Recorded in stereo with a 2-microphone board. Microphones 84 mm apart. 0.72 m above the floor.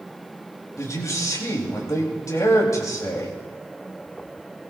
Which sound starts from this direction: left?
A man speaking, at 0.8 s.